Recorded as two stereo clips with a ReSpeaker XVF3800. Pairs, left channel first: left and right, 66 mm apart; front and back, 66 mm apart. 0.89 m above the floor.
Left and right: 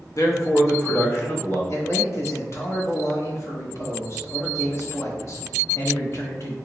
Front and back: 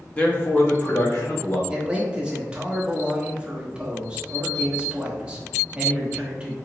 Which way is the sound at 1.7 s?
110° left.